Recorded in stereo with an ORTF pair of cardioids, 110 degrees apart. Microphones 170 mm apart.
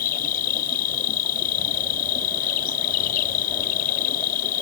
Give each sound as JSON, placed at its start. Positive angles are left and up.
{"t": 0.0, "sound": "an insect", "azimuth_deg": 60}